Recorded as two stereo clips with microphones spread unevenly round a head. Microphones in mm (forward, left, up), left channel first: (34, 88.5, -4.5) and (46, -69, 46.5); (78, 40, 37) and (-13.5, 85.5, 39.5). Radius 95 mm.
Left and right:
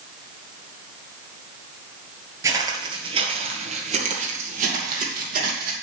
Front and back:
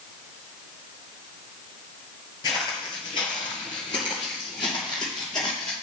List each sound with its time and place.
2.4 s footsteps: 70° right, 1.5 m; by 5.7 s 95° right, 3 m